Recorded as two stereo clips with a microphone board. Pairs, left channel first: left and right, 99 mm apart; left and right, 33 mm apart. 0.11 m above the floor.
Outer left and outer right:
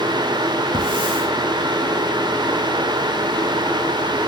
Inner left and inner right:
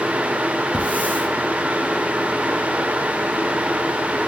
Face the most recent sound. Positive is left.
turn(degrees=-55)  # may be behind; listen again after turning